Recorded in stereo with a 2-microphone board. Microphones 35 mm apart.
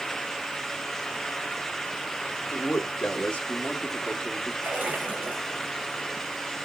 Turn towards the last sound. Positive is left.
turn(degrees=-65)  # may be behind; listen again after turning